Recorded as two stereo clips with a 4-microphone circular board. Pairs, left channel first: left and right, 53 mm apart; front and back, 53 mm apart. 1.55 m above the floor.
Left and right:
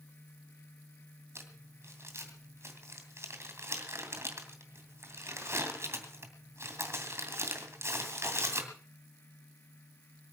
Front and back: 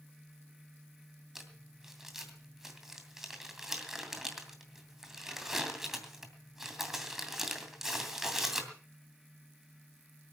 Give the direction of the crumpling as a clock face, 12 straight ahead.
3 o'clock.